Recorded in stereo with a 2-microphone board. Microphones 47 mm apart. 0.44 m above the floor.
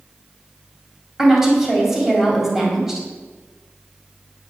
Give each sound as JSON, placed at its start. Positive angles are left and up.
{"t": 1.2, "sound": "a woman speaking", "side_deg": -10, "distance_m": 3.0}